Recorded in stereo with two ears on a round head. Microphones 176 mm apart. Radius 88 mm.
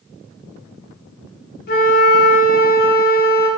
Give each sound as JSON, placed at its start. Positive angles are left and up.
{"t": 1.7, "sound": "a flute", "side_deg": 50, "distance_m": 0.6}